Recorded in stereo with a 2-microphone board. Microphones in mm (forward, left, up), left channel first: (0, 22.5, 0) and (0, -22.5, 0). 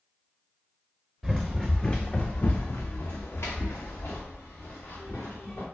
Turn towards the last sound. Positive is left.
turn(degrees=70)  # may be behind; listen again after turning